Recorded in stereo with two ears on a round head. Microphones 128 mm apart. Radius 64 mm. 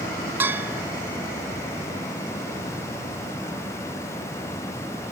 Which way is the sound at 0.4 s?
15° right (ahead or behind).